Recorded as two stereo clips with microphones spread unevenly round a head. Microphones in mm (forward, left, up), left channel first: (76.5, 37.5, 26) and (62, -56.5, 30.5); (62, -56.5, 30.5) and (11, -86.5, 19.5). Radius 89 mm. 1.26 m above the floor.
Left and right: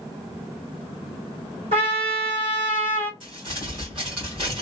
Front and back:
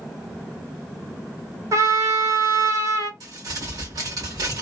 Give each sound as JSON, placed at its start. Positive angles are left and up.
{"t": 1.7, "sound": "a trumpet", "azimuth_deg": -135, "distance_m": 2.0}
{"t": 3.2, "sound": "crumpling", "azimuth_deg": -155, "distance_m": 1.6}